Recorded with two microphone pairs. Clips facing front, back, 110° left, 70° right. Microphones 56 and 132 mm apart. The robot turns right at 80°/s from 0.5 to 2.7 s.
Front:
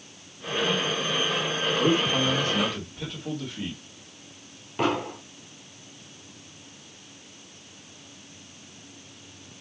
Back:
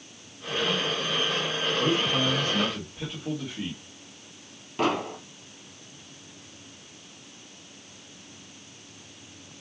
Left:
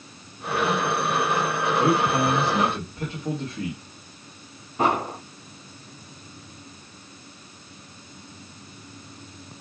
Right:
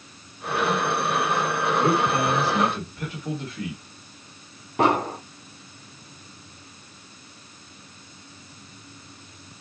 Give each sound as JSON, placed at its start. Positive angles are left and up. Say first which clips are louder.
{"t": 1.8, "sound": "a man speaking", "louder": "front 2 dB, left 1 dB", "azimuth_deg": 35, "distance_m": 1.4}
{"t": 4.8, "sound": "an explosion", "louder": "even, right 2 dB", "azimuth_deg": -80, "distance_m": 1.4}